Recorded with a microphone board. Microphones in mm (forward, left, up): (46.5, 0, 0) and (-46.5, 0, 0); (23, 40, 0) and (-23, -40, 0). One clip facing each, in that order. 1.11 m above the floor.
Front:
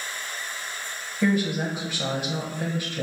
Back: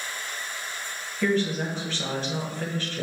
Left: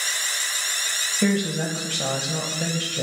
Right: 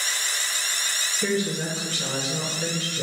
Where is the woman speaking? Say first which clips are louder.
Front 1 dB, left 3 dB; 75° left, 0.9 m.